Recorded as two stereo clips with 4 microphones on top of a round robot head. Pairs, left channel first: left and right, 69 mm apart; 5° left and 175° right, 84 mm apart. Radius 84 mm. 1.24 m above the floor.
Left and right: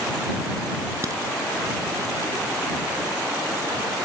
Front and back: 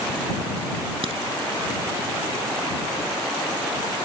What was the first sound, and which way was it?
A crack, 145° right.